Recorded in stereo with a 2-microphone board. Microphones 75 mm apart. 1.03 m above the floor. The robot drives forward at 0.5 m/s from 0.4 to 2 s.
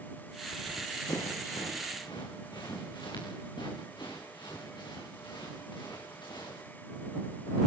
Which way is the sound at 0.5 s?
65° left (ahead or behind).